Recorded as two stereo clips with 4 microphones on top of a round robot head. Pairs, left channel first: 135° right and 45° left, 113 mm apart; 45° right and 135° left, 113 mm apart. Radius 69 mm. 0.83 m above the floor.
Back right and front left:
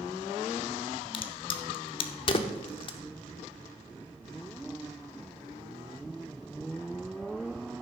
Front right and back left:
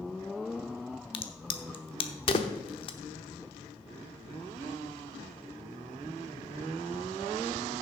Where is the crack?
90° right, 0.8 m.